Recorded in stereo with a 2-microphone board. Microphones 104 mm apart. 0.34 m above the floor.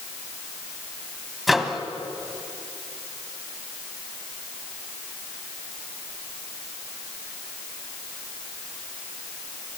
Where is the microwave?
Centre (ahead or behind), 1.5 m.